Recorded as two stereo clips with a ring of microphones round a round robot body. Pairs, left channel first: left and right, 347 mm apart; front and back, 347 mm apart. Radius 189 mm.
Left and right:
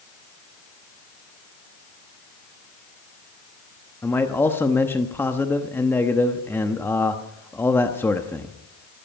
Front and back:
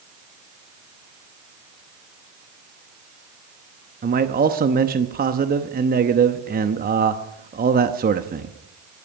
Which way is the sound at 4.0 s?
165° left.